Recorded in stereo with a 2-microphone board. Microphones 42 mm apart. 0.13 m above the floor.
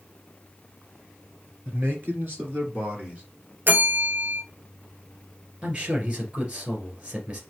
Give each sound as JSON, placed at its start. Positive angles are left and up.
{"t": 1.6, "sound": "a man speaking", "side_deg": -55, "distance_m": 2.5}
{"t": 3.7, "sound": "a bell", "side_deg": -50, "distance_m": 0.7}
{"t": 5.6, "sound": "a man speaking", "side_deg": -35, "distance_m": 2.0}